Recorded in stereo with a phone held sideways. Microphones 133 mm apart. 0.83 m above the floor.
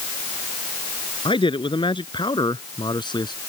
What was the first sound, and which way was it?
A man speaking, 40° left (ahead or behind).